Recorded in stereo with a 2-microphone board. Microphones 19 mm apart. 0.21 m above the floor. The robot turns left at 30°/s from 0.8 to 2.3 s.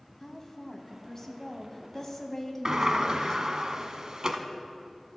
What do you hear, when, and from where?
0.2 s a woman speaking: 25° left (ahead or behind), 1.2 m
2.6 s a sliding door: 45° right (ahead or behind), 0.8 m